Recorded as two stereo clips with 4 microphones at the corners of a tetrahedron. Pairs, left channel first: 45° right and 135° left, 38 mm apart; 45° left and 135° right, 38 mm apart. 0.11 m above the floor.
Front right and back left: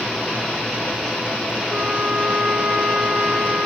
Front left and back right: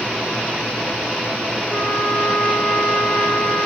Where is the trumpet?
120° left, 2.5 m.